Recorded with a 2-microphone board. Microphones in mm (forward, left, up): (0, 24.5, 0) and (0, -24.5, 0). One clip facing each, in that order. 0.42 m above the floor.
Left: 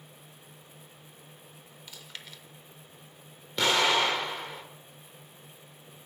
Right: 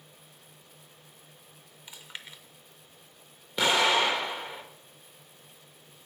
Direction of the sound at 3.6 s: 10° right (ahead or behind).